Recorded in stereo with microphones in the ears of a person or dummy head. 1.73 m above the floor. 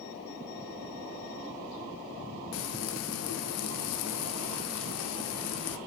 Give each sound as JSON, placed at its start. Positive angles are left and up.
{"t": 2.5, "sound": "frying", "side_deg": 80, "distance_m": 0.6}